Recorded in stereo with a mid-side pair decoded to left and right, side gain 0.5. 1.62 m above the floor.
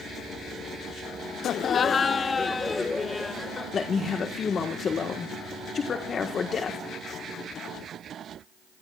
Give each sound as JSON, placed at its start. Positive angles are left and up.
{"t": 1.4, "sound": "laughter", "azimuth_deg": 60, "distance_m": 0.7}
{"t": 3.7, "sound": "a man speaking", "azimuth_deg": 40, "distance_m": 1.5}